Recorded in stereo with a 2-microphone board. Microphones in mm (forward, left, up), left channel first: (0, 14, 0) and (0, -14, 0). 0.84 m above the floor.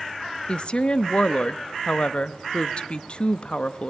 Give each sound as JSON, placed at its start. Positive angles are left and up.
{"t": 0.5, "sound": "a woman speaking", "side_deg": 40, "distance_m": 0.7}